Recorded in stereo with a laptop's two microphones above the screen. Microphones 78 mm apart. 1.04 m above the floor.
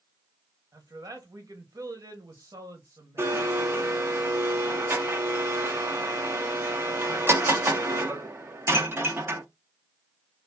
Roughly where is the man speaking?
Right.